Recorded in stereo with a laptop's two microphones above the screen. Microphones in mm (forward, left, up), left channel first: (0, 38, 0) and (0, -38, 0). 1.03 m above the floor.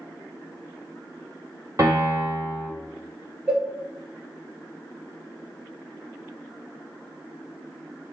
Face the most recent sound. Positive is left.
turn(degrees=-10)  # may be behind; listen again after turning